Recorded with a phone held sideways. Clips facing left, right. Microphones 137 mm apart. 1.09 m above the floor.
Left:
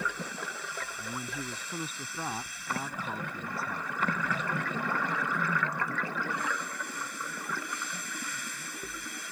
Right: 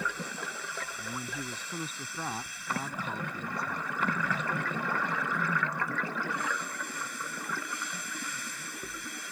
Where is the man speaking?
5° left (ahead or behind).